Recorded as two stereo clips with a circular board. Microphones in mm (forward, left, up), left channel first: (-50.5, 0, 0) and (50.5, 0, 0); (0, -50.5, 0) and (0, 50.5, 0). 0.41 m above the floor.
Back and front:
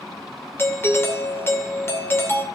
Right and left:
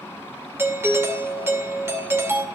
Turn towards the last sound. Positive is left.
turn(degrees=135)